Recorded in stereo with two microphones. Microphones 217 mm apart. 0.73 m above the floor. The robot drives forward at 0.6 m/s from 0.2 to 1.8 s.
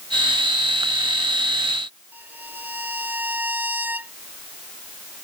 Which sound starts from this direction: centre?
A violin, at 2.1 s.